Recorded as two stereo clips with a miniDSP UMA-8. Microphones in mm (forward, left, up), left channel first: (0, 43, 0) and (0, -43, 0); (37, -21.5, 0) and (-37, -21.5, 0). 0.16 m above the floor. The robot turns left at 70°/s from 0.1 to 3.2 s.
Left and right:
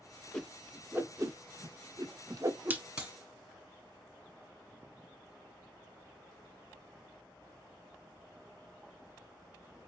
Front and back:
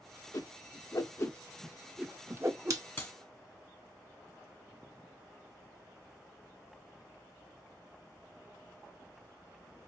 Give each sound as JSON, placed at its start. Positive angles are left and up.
{"t": 0.3, "sound": "a whoosh", "azimuth_deg": 15, "distance_m": 0.6}
{"t": 3.0, "sound": "a clap", "azimuth_deg": -20, "distance_m": 1.3}